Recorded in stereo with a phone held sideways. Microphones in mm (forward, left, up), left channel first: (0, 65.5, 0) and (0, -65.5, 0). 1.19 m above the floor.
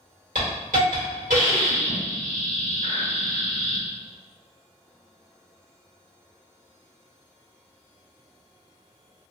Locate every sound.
0.3 s a hiss: 85° right, 1.8 m